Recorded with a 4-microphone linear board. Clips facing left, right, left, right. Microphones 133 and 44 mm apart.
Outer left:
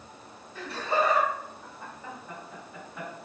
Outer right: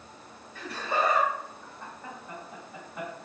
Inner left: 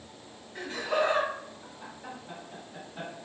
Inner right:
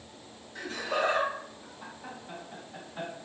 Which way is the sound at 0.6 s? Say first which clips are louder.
Outer left 2 dB, inner left 2 dB; 35° left (ahead or behind).